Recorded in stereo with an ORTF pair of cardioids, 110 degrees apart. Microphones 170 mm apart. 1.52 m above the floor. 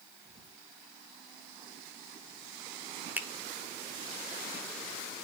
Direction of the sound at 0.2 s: 20° right.